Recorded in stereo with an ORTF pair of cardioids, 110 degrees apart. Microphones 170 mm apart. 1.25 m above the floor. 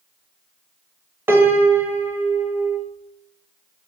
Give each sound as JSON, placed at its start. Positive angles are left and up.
{"t": 1.3, "sound": "a piano", "azimuth_deg": -15, "distance_m": 1.0}